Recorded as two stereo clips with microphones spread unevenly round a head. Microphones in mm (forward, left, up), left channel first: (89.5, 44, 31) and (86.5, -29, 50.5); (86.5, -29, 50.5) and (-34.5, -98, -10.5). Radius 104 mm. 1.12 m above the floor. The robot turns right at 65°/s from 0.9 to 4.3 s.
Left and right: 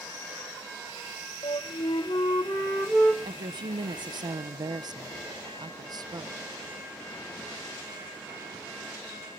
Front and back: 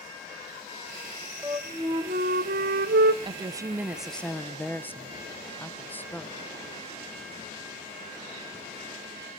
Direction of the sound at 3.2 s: 130° right.